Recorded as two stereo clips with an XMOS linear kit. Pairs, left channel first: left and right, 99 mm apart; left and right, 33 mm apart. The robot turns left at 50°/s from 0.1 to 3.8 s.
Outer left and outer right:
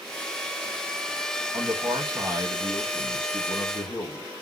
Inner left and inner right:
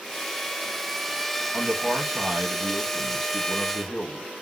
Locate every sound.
1.5 s a man speaking: 115° right, 1.9 m; by 4.3 s 130° left, 1.9 m